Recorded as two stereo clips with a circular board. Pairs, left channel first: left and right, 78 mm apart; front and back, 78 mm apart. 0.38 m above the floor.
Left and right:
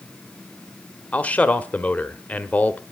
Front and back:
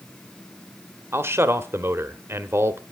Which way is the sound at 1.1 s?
150° left.